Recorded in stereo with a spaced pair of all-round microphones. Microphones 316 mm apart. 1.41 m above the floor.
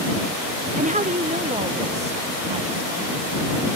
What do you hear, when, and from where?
0.8 s a woman speaking: 25° right (ahead or behind); by 3.3 s 20° right (ahead or behind)